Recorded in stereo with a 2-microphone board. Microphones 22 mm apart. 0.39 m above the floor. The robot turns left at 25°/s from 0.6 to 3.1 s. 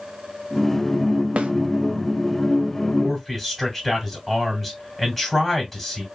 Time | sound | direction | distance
1.4 | a snare drum | 70° right (ahead or behind) | 0.5 m
3.0 | a man speaking | 10° right (ahead or behind) | 2.5 m